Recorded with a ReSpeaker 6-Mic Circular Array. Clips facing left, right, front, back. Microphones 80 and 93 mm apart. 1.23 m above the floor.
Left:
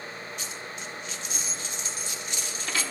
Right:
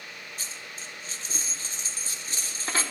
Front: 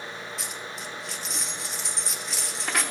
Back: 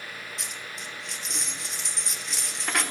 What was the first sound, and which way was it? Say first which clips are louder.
A dropped coin: left 4 dB, front 3 dB; 90° right.